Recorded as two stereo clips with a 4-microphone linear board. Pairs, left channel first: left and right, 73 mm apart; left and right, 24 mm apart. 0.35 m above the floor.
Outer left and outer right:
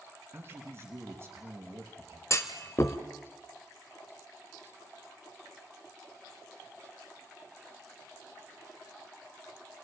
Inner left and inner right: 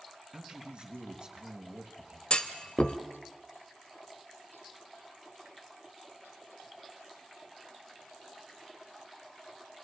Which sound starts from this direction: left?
A clunk, at 2.3 s.